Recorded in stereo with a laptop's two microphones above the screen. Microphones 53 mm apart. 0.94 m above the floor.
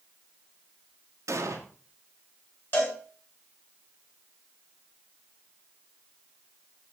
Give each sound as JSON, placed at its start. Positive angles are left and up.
{"t": 1.3, "sound": "an explosion", "side_deg": -70, "distance_m": 1.3}
{"t": 2.7, "sound": "a cowbell", "side_deg": 40, "distance_m": 3.5}